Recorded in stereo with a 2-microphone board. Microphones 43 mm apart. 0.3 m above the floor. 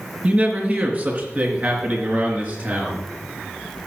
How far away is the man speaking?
About 2.5 m.